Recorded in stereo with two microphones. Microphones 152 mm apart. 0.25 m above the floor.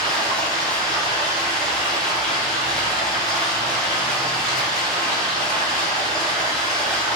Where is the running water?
5° left (ahead or behind), 1.1 m.